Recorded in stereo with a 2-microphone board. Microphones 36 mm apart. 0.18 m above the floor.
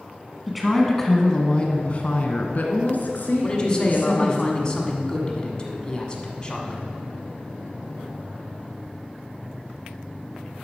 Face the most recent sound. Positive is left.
turn(degrees=25)  # may be behind; listen again after turning